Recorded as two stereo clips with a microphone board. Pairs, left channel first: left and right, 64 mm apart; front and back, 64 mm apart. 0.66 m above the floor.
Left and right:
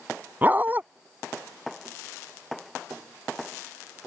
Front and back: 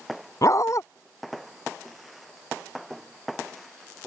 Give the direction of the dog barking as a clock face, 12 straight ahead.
1 o'clock.